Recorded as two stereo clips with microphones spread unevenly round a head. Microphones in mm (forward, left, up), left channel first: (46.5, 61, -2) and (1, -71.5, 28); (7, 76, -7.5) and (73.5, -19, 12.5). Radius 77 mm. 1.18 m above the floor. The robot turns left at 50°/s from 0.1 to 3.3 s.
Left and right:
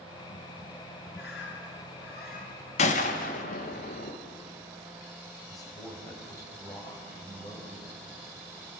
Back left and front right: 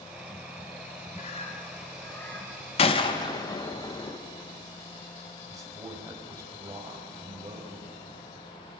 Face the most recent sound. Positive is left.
turn(degrees=5)